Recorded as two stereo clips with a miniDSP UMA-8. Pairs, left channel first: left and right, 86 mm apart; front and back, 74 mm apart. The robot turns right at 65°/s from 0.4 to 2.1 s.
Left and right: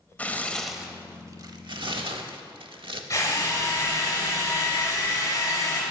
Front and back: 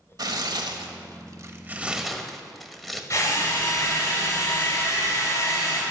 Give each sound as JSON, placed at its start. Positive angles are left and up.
{"t": 0.2, "sound": "tearing paper", "azimuth_deg": 160, "distance_m": 0.8}
{"t": 3.1, "sound": "a drill", "azimuth_deg": 35, "distance_m": 3.0}